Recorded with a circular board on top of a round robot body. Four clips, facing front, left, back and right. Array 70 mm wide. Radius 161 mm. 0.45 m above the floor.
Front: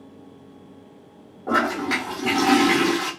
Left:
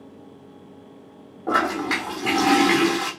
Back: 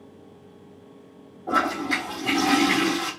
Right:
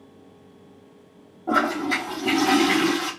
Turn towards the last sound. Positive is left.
turn(degrees=60)